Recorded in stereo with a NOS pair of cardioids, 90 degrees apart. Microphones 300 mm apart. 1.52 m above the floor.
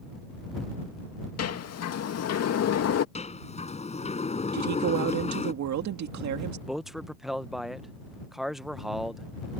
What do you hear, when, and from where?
1.4 s a sliding door: 55° left
3.1 s a sliding door: 20° left
4.5 s a woman speaking: 70° right
6.7 s a man speaking: straight ahead